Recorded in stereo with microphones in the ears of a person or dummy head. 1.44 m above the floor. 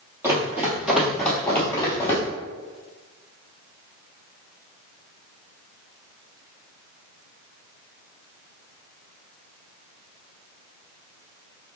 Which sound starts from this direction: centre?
Running footsteps, at 0.2 s.